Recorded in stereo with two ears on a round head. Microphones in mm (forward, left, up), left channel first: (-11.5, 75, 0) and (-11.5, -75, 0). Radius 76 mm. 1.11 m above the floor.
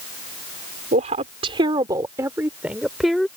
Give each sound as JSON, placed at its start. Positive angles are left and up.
{"t": 0.9, "sound": "a woman speaking", "side_deg": -50}